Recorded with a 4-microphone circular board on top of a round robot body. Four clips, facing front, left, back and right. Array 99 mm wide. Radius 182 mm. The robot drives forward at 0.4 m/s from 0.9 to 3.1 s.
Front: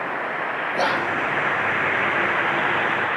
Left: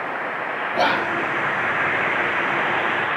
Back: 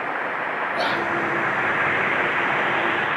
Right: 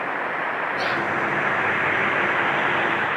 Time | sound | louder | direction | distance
0.7 | whispering | left 8 dB, front 2 dB | 75° left | 1.4 m